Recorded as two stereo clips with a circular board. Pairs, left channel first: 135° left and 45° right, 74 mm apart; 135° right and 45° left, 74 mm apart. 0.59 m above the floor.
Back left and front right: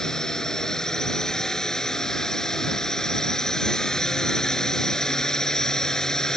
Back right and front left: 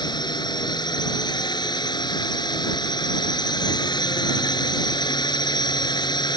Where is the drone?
145° right.